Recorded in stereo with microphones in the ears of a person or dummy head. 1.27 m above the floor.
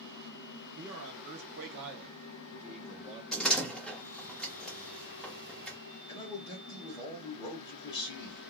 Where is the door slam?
Centre (ahead or behind), 1.0 m.